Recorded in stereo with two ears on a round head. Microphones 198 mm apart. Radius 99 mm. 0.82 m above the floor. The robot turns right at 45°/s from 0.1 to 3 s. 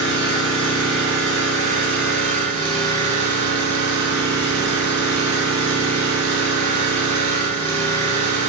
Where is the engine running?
145° left, 1.7 m; by 8.5 s 85° right, 1.7 m.